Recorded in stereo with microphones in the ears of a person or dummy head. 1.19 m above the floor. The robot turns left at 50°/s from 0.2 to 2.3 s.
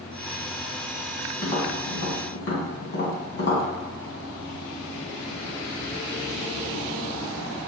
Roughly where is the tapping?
Left.